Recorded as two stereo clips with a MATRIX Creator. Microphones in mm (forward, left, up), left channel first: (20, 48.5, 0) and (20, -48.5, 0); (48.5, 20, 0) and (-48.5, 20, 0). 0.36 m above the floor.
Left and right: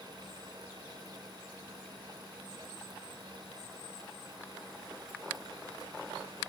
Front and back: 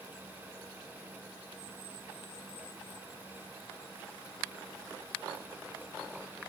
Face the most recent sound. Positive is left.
No sound to turn to.